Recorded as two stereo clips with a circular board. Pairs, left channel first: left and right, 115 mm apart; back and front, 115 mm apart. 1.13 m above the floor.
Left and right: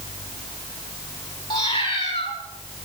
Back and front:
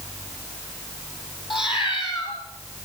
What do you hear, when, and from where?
1.5 s a cat meowing: 140° left, 5 m